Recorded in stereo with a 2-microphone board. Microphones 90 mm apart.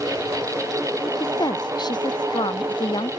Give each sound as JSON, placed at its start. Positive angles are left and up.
{"t": 1.2, "sound": "a woman speaking", "side_deg": 50}